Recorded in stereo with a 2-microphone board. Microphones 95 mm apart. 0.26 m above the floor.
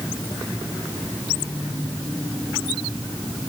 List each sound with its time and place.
Only background noise.